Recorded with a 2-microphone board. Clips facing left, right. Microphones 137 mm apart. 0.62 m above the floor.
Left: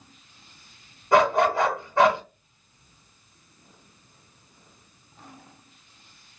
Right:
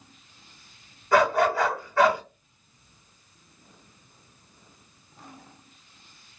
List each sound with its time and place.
1.1 s a dog barking: 25° left (ahead or behind), 1.2 m